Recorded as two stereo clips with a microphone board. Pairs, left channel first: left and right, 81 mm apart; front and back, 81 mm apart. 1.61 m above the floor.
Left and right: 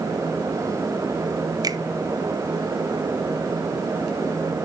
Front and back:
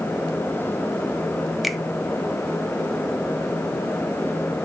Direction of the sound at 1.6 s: 90° right.